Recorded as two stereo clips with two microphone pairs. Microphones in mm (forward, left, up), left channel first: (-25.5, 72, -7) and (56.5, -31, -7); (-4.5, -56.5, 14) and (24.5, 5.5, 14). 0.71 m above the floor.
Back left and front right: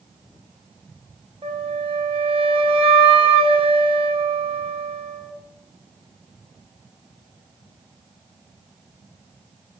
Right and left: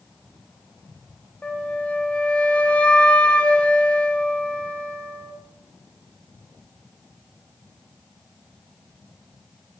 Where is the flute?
55° right, 0.7 m.